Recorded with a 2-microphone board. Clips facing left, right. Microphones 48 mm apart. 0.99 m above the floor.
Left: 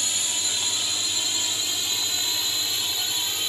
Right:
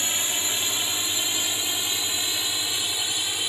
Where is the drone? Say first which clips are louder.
Right 2 dB; 30° right (ahead or behind); by 3.5 s 15° right (ahead or behind).